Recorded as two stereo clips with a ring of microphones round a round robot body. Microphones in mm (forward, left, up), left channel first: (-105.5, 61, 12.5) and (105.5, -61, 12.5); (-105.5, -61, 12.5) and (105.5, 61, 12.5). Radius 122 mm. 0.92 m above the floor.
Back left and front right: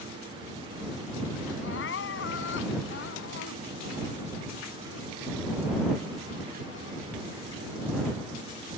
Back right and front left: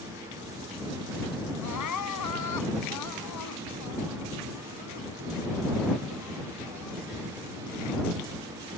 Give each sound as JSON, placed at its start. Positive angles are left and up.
{"t": 1.6, "sound": "crying", "azimuth_deg": -165}